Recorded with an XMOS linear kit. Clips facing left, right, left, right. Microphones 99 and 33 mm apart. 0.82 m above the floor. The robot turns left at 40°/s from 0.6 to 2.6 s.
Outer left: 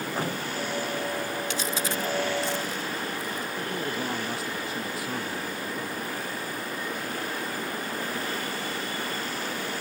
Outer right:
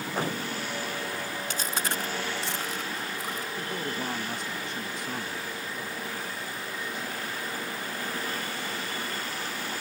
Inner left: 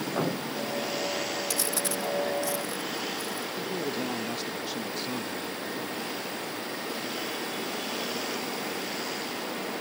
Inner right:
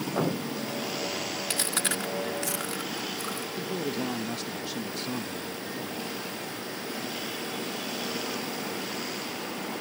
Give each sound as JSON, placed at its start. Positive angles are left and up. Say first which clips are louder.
{"t": 1.5, "sound": "chewing", "louder": "outer left 2 dB, inner right 1 dB", "side_deg": -40}
{"t": 3.6, "sound": "a man speaking", "louder": "outer left 3 dB, inner right 1 dB", "side_deg": 5}